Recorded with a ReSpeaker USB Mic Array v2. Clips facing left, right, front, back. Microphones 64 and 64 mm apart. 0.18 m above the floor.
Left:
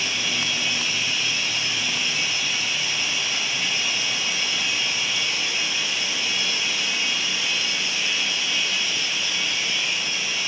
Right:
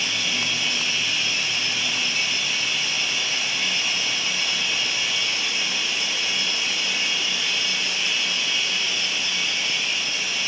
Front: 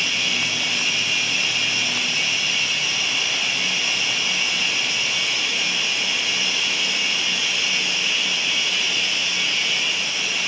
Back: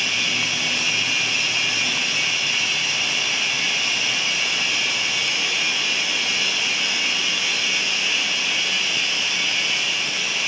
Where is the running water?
160° left, 6 m.